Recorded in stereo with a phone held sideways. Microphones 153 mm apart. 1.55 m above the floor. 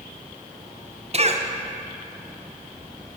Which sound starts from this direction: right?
A cough, at 1.1 s.